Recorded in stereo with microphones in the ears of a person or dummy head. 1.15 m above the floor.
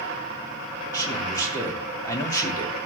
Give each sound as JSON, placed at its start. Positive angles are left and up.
{"t": 0.9, "sound": "a man speaking", "side_deg": 20, "distance_m": 3.0}